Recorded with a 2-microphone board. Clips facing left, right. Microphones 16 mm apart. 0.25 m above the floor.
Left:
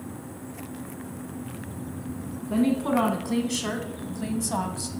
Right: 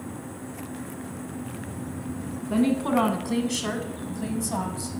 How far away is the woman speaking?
About 2.5 m.